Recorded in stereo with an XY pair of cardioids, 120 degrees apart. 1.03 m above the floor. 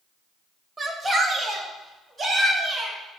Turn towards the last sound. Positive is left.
turn(degrees=-25)